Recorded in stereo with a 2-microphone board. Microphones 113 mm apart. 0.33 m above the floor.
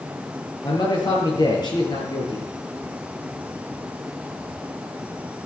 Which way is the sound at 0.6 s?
40° left (ahead or behind).